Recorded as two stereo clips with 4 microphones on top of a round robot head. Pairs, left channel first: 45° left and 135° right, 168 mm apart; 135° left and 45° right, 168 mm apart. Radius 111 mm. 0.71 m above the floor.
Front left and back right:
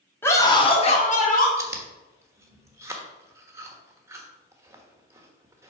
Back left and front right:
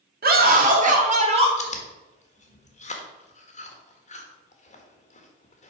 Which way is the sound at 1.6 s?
155° left.